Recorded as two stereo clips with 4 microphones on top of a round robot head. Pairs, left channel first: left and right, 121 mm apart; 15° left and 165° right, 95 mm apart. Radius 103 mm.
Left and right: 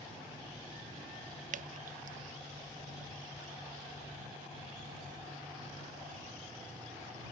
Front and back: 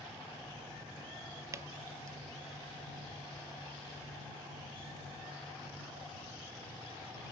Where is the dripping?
105° right.